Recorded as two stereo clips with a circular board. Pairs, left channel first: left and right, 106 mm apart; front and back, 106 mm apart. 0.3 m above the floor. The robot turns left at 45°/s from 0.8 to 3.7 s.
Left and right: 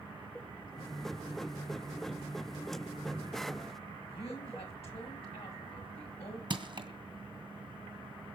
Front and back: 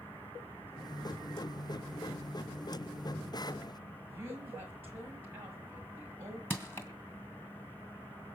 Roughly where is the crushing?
Ahead right.